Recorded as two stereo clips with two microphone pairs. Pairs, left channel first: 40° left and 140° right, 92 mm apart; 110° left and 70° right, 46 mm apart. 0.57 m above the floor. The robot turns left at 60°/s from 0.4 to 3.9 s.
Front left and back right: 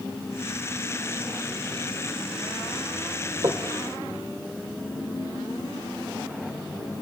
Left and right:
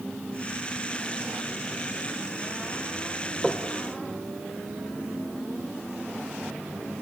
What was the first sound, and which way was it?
Knocking, 160° right.